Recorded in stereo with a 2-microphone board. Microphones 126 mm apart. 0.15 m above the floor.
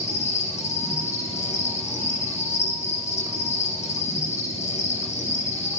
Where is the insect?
70° left (ahead or behind), 1.3 m.